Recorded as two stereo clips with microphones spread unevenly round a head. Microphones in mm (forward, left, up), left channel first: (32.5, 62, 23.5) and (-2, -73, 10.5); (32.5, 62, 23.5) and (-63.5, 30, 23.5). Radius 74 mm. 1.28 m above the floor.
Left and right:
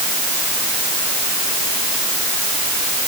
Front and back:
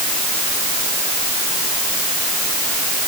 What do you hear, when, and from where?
Only background noise.